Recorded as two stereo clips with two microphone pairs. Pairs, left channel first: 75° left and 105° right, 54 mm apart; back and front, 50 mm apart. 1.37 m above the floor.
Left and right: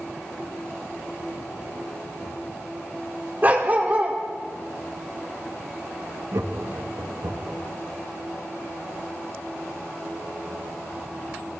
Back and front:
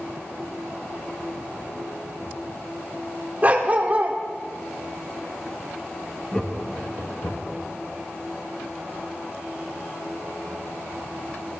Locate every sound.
3.4 s a dog barking: 55° right, 1.8 m
6.3 s laughter: 110° right, 1.7 m